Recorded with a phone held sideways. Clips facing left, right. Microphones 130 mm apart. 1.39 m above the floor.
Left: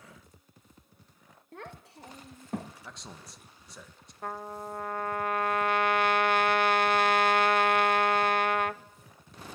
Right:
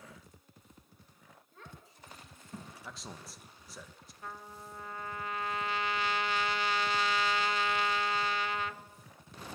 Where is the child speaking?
70° left (ahead or behind), 1.2 m.